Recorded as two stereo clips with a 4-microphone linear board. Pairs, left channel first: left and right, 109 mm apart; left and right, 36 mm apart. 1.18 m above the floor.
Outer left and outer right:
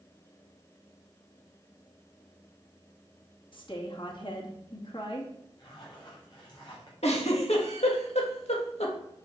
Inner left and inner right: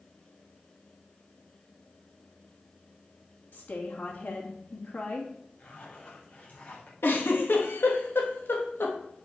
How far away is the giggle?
About 1.9 m.